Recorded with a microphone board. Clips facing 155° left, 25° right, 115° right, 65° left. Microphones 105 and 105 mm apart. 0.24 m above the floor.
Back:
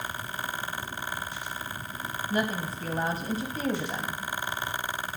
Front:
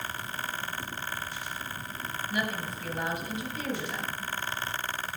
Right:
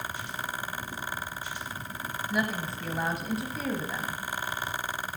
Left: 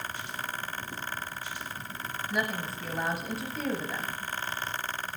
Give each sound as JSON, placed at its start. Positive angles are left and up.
{"t": 2.3, "sound": "a woman speaking", "azimuth_deg": 155, "distance_m": 1.1}